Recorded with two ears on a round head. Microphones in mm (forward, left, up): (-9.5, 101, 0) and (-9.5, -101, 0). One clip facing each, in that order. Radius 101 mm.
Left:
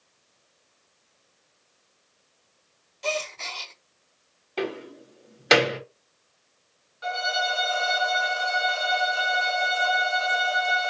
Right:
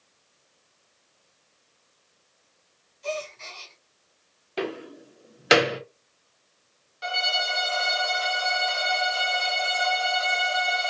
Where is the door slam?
5° right (ahead or behind), 1.0 m.